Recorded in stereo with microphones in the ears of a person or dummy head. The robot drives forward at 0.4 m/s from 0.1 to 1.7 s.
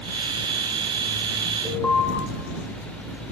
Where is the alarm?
10° left (ahead or behind), 1.4 m.